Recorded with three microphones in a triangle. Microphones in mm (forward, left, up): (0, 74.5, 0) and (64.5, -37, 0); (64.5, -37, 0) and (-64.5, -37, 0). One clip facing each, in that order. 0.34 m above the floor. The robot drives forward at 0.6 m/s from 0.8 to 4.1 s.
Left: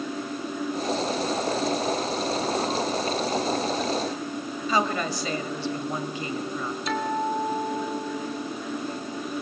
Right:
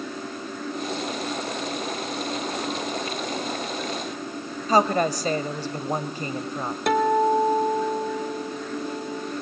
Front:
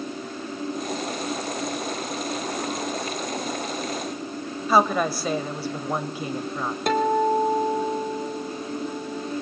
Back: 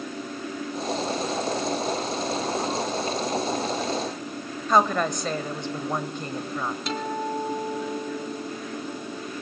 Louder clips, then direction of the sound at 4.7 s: Right 6 dB, front 1 dB; 80° right.